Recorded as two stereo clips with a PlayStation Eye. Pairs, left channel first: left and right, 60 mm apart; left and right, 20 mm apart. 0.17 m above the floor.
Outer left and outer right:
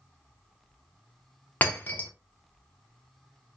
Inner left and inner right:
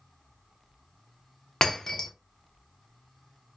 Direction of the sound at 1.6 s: 35° left (ahead or behind).